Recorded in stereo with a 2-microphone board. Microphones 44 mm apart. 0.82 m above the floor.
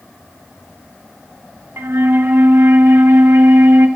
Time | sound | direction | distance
1.8 | a flute | 80° right | 0.9 m